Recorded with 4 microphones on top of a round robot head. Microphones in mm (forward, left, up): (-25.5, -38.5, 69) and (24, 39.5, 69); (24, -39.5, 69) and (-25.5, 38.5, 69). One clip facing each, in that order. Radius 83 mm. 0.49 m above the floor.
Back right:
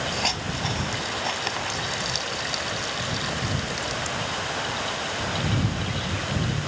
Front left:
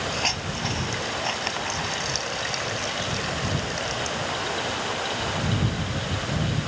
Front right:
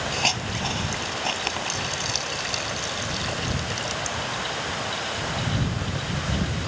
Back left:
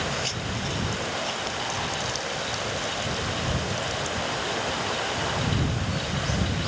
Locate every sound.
0.1 s a hiss: 35° right